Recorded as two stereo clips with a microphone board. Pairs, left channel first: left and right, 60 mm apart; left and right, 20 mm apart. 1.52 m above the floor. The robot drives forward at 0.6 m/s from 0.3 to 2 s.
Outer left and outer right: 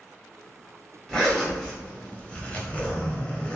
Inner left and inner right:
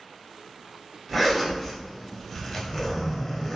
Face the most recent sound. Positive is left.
turn(degrees=20)  # may be behind; listen again after turning